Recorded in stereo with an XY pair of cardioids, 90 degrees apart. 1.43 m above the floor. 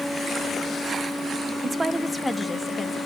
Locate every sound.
1.6 s a woman speaking: 40° right, 0.8 m; by 3.0 s 20° left, 2.0 m